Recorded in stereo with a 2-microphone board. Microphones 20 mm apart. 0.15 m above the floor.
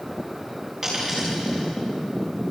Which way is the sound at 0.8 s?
15° right (ahead or behind).